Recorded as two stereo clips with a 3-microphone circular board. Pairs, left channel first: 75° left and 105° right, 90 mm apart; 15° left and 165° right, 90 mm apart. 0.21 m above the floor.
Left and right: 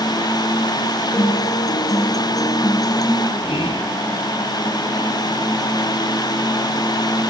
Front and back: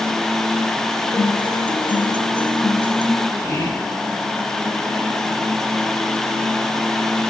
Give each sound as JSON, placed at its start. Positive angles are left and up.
{"t": 1.1, "sound": "a guitar", "azimuth_deg": 30, "distance_m": 3.0}
{"t": 3.4, "sound": "whispering", "azimuth_deg": 65, "distance_m": 8.0}